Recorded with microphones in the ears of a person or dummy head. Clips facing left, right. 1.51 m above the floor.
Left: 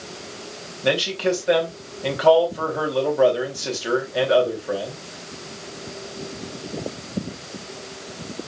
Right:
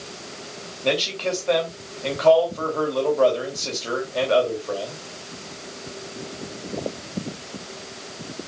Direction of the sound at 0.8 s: 15° left (ahead or behind).